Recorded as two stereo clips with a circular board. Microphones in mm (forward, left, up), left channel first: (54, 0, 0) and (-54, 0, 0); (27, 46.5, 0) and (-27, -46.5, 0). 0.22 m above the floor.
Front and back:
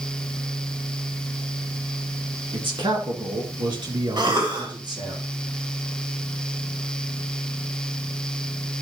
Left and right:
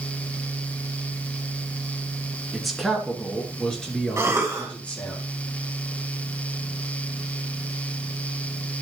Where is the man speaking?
150° left, 2.5 m; by 5.2 s 135° left, 4 m.